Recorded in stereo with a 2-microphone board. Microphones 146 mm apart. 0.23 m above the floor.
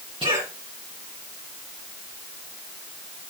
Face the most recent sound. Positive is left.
turn(degrees=-35)  # may be behind; listen again after turning